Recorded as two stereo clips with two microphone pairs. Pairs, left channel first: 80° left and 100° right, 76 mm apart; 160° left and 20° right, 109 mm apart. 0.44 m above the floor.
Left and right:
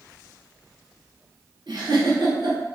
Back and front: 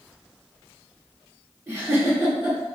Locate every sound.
1.7 s a giggle: 90° right, 1.2 m